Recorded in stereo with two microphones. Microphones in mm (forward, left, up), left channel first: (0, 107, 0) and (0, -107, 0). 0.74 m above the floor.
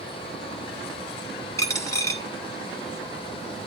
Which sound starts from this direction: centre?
A dropped coin, at 1.6 s.